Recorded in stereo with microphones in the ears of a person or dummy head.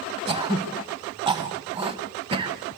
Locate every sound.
0.3 s throat clearing: 25° right (ahead or behind), 2 m